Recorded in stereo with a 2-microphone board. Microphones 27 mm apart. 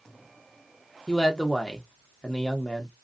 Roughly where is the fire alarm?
No fire alarm in this recording.